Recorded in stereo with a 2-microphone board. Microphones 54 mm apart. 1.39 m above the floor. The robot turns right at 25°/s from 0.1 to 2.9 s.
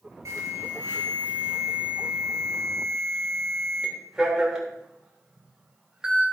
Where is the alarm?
75° right, 3.5 m; by 6.2 s 10° right, 3.5 m.